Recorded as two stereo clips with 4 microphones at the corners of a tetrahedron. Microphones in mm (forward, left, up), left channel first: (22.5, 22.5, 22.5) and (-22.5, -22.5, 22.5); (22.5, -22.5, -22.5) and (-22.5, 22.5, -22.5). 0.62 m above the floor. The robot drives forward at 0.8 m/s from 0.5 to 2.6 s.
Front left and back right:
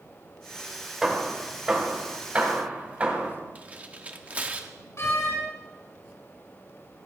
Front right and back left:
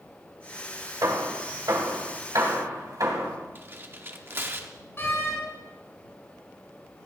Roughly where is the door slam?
Ahead.